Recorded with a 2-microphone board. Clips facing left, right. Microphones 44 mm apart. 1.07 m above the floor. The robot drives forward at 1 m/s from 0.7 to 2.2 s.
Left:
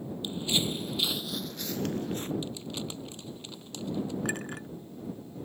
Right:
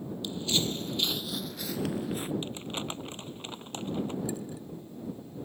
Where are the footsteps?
25° left (ahead or behind); by 2.3 s 10° right (ahead or behind).